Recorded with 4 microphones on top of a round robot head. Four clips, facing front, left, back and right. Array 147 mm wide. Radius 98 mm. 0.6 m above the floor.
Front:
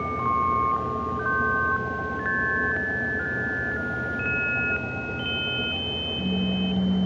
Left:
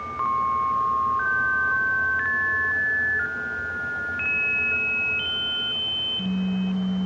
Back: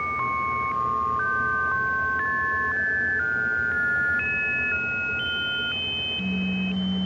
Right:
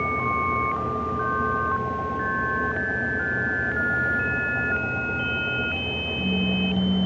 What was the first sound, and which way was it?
Only background noise.